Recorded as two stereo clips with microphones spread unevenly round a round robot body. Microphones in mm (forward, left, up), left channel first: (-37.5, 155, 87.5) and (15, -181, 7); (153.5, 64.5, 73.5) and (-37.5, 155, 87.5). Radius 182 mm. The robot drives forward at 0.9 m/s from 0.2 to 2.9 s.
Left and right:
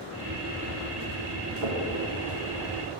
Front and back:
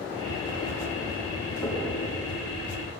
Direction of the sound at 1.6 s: 110° right.